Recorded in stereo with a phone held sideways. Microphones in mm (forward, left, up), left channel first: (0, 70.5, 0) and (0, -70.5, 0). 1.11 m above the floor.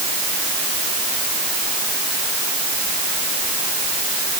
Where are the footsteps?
No footsteps in this recording.